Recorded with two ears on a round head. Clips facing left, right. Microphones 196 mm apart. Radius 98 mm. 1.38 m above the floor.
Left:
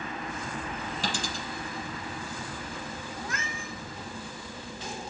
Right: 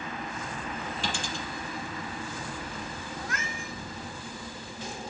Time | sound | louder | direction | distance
1.0 | a dropped coin | left 2 dB | 35° left (ahead or behind) | 6 m
3.2 | a cat meowing | even | 75° left (ahead or behind) | 4 m